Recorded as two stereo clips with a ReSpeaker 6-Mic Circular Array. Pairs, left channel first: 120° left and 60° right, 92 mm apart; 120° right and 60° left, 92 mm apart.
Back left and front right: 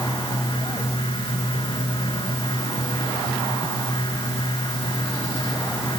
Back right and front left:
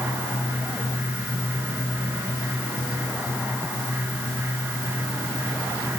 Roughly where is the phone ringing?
I don't hear a phone ringing.